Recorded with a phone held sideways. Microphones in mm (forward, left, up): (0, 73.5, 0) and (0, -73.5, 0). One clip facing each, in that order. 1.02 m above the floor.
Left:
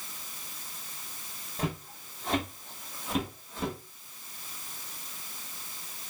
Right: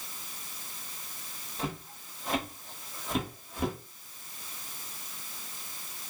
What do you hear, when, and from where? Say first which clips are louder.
1.6 s footsteps: left 2 dB; 40° left (ahead or behind), 1.8 m; by 3.8 s 15° right (ahead or behind), 1.3 m